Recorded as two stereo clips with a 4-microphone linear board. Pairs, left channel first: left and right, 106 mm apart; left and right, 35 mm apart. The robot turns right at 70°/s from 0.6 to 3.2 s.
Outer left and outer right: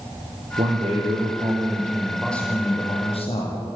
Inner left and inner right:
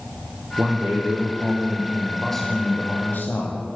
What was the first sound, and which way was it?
A man speaking, 110° right.